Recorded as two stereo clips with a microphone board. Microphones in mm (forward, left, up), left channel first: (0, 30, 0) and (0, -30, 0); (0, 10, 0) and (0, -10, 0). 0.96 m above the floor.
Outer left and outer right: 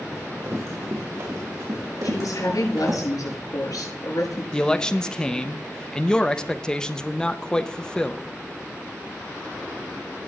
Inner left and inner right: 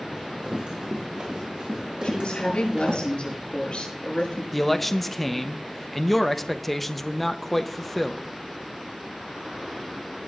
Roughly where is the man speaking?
Centre.